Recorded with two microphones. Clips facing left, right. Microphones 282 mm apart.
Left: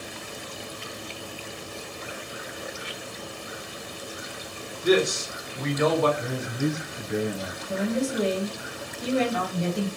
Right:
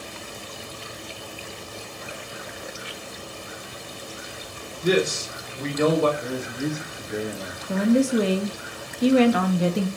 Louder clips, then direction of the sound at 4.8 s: Even; 30° right (ahead or behind).